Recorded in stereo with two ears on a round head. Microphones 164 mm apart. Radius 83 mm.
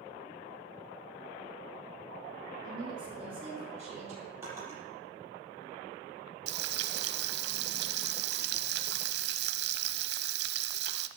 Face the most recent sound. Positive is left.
turn(degrees=-60)  # may be behind; listen again after turning